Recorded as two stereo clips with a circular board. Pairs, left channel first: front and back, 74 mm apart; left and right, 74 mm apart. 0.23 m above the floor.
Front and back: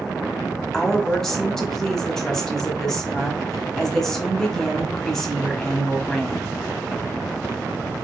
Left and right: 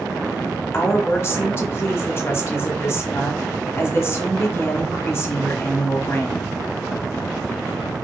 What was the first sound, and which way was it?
A woman speaking, 80° left.